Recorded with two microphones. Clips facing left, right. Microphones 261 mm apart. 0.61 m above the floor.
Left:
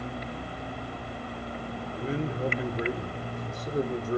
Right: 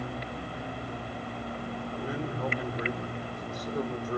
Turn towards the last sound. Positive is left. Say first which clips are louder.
# left 4 dB
turn(degrees=25)  # may be behind; listen again after turning